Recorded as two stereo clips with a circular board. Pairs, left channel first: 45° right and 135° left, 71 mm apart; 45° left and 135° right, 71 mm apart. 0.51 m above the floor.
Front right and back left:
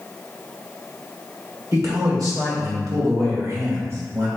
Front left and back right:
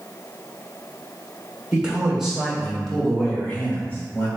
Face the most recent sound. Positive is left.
turn(degrees=100)